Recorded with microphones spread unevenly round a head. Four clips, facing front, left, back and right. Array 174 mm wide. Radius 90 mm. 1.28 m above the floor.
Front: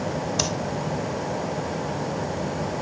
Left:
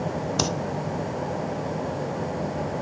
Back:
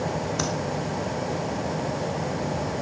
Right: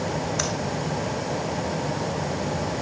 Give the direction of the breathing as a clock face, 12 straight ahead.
9 o'clock.